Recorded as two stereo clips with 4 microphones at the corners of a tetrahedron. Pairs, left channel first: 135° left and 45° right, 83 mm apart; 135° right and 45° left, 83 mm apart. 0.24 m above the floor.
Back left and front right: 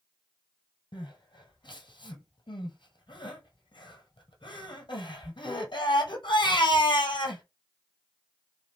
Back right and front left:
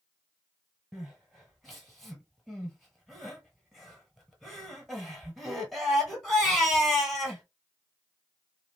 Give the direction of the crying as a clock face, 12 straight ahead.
7 o'clock.